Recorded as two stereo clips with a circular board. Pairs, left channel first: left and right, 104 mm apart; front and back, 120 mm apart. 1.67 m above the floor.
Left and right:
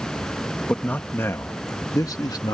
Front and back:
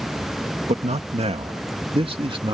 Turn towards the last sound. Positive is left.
turn(degrees=135)